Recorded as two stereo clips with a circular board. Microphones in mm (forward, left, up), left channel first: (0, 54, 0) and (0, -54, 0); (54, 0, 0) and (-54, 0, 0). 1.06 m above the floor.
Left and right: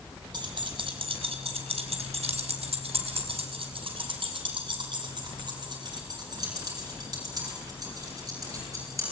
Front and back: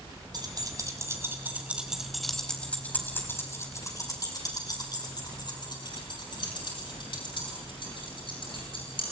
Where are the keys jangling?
130° right, 4 m; by 9.0 s 30° right, 11.5 m.